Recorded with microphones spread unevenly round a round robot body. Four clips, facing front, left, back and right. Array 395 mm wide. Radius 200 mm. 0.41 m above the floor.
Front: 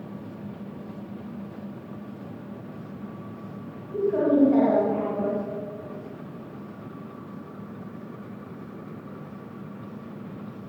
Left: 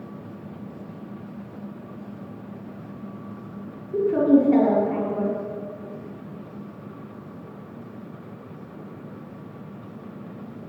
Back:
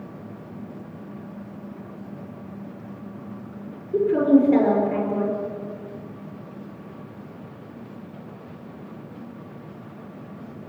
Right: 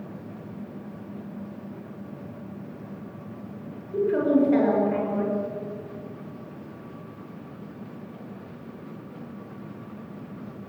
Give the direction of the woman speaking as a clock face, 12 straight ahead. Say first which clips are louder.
Left 4 dB, back 4 dB; 7 o'clock.